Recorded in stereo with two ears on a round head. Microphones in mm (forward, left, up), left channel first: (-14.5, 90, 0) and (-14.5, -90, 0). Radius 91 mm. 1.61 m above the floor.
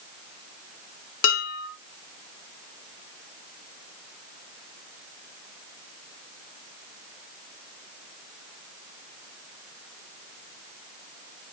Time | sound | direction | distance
1.2 | dishes clattering | 65° left (ahead or behind) | 3.5 m